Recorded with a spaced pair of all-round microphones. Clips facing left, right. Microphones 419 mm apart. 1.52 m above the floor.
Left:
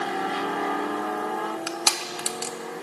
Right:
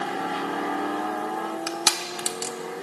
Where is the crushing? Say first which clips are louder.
Right 1 dB; 35° right (ahead or behind), 0.7 m.